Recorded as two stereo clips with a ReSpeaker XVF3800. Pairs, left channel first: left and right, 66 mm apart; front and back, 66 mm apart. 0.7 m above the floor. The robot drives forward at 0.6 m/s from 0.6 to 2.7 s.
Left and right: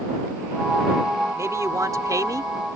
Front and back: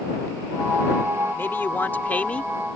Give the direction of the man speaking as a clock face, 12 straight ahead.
2 o'clock.